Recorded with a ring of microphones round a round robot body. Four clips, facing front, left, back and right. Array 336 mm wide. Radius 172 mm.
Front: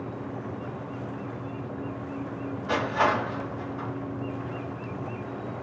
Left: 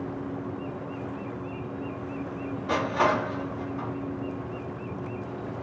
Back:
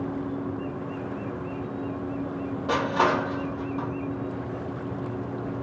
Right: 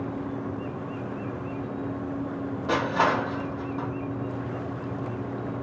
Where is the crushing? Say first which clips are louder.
Right 1 dB, back 1 dB; 150° right, 1.3 m.